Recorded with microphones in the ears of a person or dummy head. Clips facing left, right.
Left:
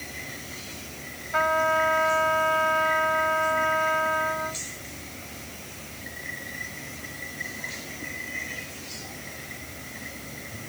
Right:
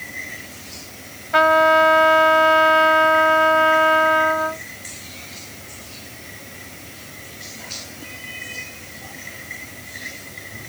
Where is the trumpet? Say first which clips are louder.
Right 9 dB; 75° right (ahead or behind).